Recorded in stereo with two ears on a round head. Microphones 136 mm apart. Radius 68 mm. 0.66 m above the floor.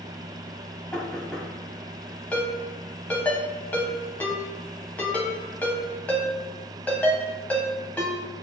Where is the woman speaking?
No woman speaking in this recording.